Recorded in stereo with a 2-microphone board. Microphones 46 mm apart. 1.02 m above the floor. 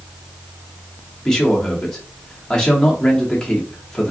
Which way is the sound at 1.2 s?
15° left (ahead or behind).